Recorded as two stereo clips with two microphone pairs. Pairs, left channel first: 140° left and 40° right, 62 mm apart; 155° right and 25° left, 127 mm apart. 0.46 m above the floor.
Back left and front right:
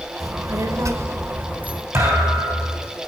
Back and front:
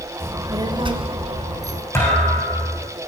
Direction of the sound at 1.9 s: 85° right.